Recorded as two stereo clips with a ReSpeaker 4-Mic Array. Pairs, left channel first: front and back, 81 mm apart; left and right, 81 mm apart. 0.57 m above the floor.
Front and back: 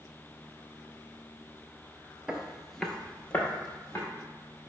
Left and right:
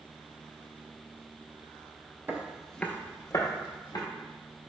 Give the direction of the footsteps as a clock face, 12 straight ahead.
4 o'clock.